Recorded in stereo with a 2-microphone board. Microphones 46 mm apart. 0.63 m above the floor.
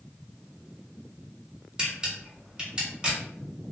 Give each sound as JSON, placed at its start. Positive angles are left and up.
{"t": 1.8, "sound": "a camera shutter", "side_deg": -15, "distance_m": 1.7}